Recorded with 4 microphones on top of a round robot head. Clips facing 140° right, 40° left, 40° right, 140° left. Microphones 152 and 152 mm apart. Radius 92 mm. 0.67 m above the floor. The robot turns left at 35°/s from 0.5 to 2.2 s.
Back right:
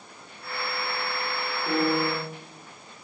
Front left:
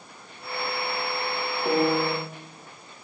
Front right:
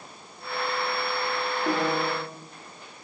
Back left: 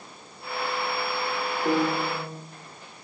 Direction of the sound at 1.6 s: 95° left.